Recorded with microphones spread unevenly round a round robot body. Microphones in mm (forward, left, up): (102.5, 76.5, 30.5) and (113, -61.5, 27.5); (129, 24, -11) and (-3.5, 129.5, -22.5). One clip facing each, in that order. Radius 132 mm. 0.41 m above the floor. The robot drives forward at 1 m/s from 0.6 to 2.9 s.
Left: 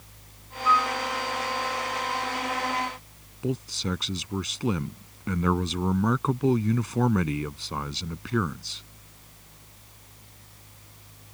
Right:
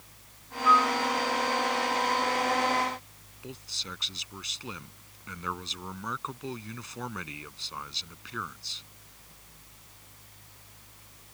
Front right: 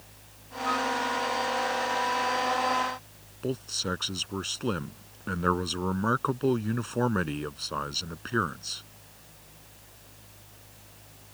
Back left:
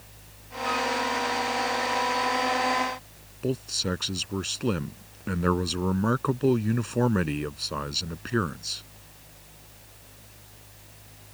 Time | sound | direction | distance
0.7 | a flute | 175° left | ?
3.4 | a man speaking | 65° left | ?